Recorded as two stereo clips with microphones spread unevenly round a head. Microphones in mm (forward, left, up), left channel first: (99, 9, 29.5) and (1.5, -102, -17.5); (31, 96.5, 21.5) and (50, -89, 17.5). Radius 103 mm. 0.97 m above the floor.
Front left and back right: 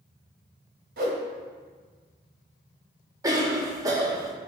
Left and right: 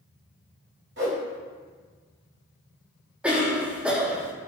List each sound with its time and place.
1.0 s a whoosh: 120° right, 1.4 m
3.2 s a cough: 165° right, 0.9 m